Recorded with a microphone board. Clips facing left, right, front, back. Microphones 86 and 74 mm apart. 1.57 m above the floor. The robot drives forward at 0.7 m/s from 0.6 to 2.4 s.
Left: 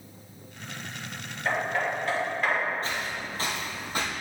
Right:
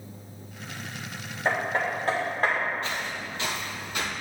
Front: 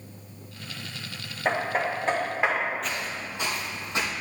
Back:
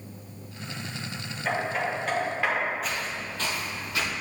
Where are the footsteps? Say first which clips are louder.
Even, even; 95° left, 1.8 m; by 4.1 s 50° left, 2.5 m.